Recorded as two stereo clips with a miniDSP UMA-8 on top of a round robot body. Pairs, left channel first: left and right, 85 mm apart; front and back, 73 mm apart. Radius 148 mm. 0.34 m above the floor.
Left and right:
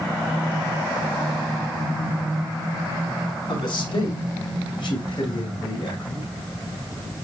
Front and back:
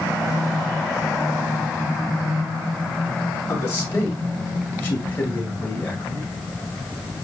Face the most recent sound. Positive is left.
turn(degrees=65)